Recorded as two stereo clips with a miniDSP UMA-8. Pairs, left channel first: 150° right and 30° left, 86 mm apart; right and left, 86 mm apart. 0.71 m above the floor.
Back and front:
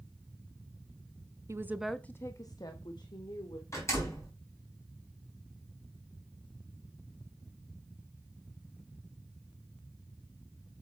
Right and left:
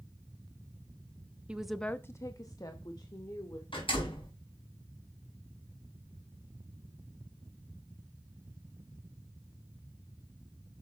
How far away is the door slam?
About 4 m.